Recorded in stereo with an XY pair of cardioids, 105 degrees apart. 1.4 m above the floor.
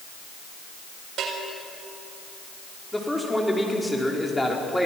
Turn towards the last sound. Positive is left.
turn(degrees=10)